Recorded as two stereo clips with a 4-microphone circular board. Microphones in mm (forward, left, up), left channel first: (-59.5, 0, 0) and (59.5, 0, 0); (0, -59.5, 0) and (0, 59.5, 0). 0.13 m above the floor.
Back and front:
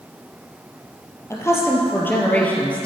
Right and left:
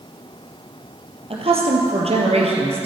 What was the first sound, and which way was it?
A woman speaking, 115° left.